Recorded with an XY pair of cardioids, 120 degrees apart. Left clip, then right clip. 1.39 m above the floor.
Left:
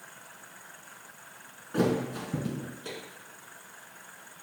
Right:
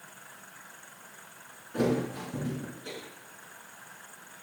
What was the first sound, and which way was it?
A thud, 45° left.